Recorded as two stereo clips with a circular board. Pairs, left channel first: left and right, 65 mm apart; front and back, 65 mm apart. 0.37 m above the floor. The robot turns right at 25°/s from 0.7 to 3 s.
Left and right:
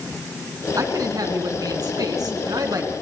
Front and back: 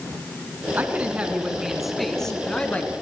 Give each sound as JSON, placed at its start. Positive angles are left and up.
{"t": 0.8, "sound": "a woman speaking", "azimuth_deg": -120, "distance_m": 4.0}